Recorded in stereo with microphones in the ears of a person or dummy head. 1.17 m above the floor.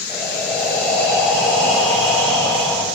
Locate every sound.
0.1 s breathing: 5° left (ahead or behind), 4 m